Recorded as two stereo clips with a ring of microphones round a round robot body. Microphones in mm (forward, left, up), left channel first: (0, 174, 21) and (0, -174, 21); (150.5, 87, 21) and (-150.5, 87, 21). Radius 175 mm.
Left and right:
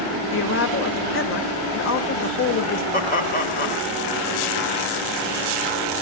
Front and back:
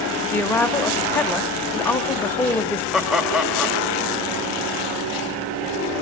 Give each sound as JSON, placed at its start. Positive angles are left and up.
{"t": 0.3, "sound": "a woman speaking", "azimuth_deg": 80, "distance_m": 1.0}
{"t": 2.9, "sound": "laughter", "azimuth_deg": 90, "distance_m": 0.9}